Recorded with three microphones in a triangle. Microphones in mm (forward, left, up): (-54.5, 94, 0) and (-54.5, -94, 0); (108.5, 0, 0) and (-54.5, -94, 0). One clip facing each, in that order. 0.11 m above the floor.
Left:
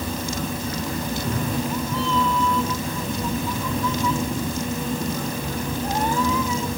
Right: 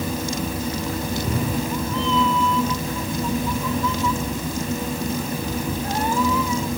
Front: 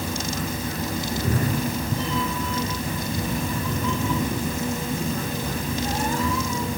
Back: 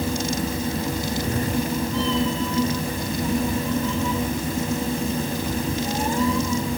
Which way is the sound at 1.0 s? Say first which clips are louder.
Right 2 dB, back 1 dB; 30° right.